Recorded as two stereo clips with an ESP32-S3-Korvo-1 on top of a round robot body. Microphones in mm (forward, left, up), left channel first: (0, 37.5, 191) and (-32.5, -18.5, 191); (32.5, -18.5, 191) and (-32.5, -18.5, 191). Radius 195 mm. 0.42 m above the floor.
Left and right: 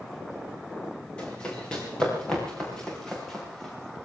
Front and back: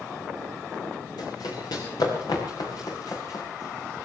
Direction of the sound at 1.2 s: 15° right.